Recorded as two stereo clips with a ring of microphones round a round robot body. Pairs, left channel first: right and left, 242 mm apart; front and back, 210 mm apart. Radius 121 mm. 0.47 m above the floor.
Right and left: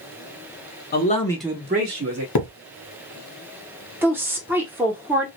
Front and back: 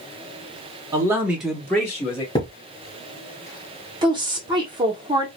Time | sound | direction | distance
0.9 | a man speaking | 110° right | 0.9 m
2.4 | a thud | 75° right | 0.8 m
4.0 | a woman speaking | 160° left | 0.7 m